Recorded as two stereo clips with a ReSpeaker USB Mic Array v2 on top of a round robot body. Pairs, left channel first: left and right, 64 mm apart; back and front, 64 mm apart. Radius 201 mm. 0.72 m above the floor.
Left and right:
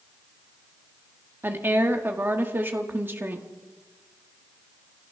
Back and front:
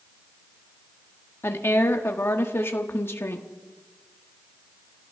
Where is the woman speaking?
140° right, 1.5 m.